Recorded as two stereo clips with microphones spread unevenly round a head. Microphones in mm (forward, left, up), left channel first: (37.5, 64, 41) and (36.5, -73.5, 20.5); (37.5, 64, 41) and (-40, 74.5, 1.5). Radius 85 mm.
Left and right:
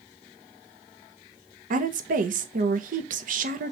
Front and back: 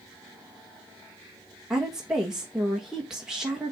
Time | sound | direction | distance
1.7 | a woman speaking | 110° right | 1.3 m